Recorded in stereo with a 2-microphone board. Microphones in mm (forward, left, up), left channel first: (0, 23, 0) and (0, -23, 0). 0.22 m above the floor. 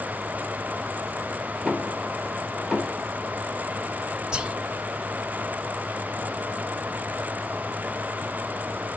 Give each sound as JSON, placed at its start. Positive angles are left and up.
{"t": 1.6, "sound": "knocking", "side_deg": -5, "distance_m": 6.0}
{"t": 4.3, "sound": "whispering", "side_deg": -20, "distance_m": 1.2}